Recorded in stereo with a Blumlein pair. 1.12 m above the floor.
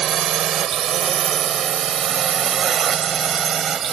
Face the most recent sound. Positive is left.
turn(degrees=-25)